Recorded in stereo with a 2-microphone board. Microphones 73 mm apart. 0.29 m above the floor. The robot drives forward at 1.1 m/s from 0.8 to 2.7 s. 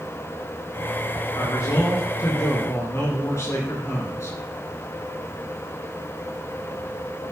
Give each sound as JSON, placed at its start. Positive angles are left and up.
{"t": 1.3, "sound": "a man speaking", "side_deg": 60, "distance_m": 3.5}